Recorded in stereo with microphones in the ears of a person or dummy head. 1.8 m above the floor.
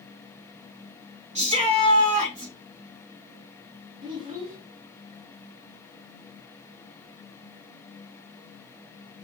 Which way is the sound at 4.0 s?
40° right (ahead or behind).